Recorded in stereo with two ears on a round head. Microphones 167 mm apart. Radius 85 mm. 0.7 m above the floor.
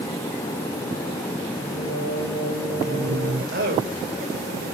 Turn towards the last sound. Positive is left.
turn(degrees=-55)  # may be behind; listen again after turning